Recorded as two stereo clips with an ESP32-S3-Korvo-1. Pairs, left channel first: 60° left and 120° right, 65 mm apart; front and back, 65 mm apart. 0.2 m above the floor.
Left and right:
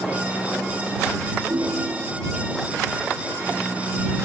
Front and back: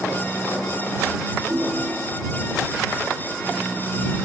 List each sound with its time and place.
1.5 s a ringtone: 125° right